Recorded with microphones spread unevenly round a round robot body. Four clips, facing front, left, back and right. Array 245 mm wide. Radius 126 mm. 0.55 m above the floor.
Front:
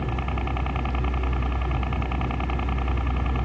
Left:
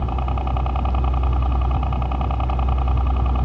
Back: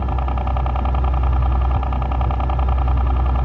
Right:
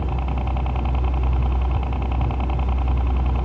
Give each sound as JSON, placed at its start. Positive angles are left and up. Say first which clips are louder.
{"t": 0.0, "sound": "a helicopter", "louder": "left 2 dB, back 4 dB", "azimuth_deg": 160}